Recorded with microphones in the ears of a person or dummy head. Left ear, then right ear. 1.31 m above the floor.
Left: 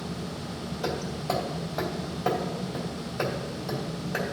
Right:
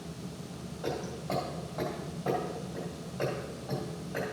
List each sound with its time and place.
0.8 s hammering: 70° left (ahead or behind), 3 m